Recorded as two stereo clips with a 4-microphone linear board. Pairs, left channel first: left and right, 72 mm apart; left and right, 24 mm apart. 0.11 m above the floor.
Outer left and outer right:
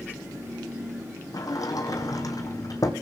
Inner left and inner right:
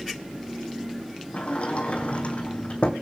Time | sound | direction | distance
1.3 | a sliding door | 55° left (ahead or behind) | 1.5 m